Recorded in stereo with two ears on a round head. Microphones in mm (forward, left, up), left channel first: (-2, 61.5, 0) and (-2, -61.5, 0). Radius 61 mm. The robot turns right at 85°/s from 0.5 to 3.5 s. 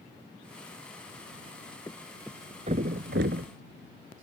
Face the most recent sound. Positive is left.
turn(degrees=-60)  # may be behind; listen again after turning